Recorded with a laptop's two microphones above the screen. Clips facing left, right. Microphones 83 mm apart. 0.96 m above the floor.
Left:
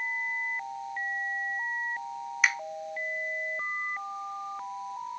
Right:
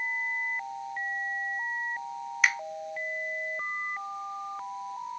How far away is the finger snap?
About 0.6 m.